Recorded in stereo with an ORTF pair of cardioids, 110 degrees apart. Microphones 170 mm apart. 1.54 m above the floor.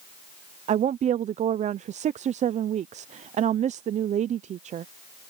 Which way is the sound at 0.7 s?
45° right.